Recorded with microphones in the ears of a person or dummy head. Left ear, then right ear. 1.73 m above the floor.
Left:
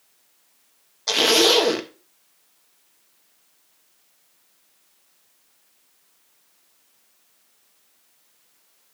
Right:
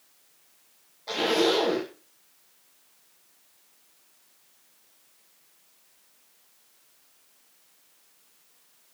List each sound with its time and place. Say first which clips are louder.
1.1 s a zipper: left 7 dB; 55° left (ahead or behind), 1.4 m